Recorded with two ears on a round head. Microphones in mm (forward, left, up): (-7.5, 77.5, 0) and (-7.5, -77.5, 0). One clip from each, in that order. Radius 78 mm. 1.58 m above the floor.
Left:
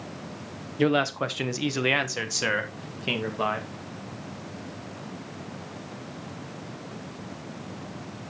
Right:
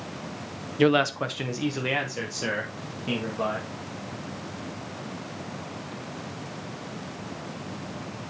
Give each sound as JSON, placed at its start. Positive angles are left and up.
{"t": 0.8, "sound": "a man speaking", "side_deg": -20, "distance_m": 0.6}